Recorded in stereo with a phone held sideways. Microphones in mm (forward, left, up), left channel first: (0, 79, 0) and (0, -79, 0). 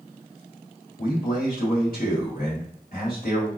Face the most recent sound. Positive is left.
turn(degrees=65)  # may be behind; listen again after turning